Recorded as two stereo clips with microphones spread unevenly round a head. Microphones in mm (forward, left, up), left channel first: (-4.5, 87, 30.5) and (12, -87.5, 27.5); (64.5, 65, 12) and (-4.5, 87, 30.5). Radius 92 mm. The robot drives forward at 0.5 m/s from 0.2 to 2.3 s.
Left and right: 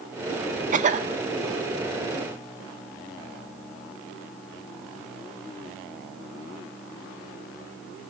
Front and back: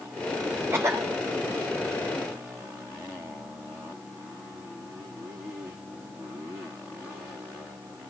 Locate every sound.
0.7 s a cough: 125° right, 1.3 m; by 1.1 s 130° right, 1.4 m